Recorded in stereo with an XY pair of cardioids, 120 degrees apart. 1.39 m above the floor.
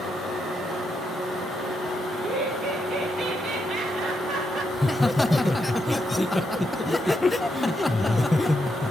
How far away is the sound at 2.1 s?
About 7 m.